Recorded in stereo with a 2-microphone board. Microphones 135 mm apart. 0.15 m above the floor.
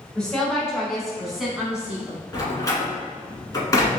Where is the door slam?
25° left (ahead or behind), 1.2 m.